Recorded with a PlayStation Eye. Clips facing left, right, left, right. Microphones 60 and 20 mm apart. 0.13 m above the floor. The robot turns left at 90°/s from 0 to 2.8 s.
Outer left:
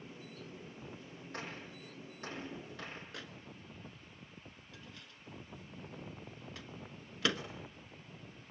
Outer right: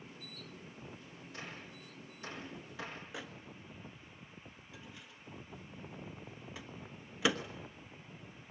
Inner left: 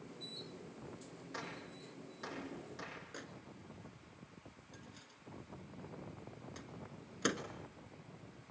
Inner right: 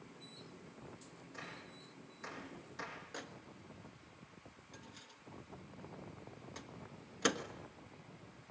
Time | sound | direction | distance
1.3 | a gunshot | 50° left (ahead or behind) | 6 m
3.1 | a microwave | 10° right (ahead or behind) | 1.3 m